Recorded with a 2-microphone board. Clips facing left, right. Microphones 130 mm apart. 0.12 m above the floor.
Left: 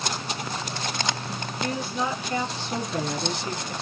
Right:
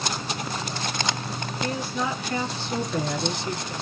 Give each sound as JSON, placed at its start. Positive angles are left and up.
{"t": 1.6, "sound": "a woman speaking", "side_deg": 25, "distance_m": 1.8}